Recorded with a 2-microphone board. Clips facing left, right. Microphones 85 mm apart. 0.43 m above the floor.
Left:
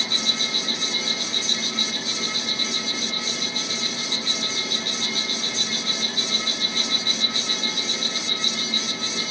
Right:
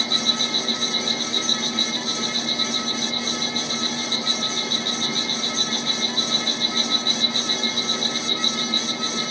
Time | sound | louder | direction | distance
0.0 | an insect | right 3 dB | 40° right (ahead or behind) | 4.5 m